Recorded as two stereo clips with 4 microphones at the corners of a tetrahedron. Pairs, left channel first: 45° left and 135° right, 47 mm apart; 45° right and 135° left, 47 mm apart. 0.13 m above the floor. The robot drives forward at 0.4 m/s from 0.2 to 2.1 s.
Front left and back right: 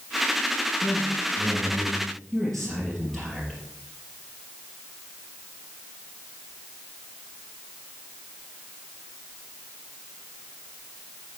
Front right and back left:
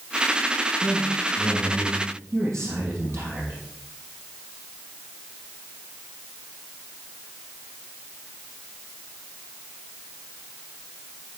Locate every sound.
0.8 s a man speaking: 120° left, 3.5 m; by 3.5 s 130° left, 4 m